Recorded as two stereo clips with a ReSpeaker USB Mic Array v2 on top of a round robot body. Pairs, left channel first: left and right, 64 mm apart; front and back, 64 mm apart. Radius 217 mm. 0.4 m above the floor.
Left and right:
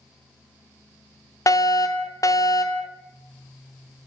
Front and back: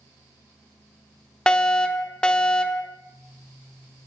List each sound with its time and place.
1.5 s a fire alarm: 75° left, 3.5 m